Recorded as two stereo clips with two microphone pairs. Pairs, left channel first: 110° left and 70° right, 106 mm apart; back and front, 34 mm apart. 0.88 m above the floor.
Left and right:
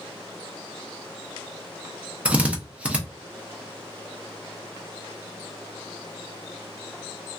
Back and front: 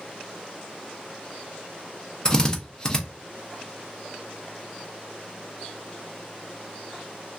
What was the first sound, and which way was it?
A drill, 135° right.